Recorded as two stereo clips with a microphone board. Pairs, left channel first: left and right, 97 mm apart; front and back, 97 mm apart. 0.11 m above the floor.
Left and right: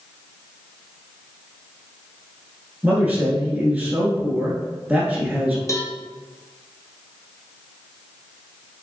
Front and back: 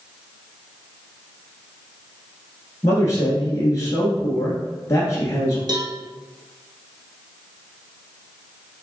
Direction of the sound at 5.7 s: 140° left.